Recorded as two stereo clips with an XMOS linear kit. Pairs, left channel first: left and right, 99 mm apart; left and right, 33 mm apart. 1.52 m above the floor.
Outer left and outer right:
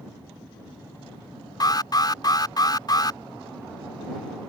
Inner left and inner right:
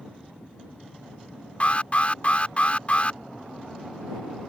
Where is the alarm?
40° left (ahead or behind).